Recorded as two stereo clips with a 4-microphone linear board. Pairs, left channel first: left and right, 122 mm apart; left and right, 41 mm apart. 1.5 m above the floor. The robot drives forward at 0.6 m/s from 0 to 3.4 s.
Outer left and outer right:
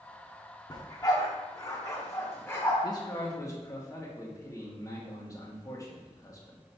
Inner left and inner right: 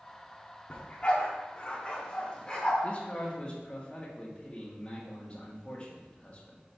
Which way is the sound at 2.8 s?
35° left (ahead or behind).